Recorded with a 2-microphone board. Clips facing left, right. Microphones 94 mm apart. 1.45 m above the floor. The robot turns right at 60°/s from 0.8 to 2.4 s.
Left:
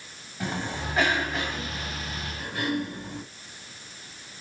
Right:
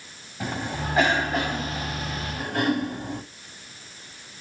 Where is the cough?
170° right, 5 m; by 3.2 s 75° right, 5 m.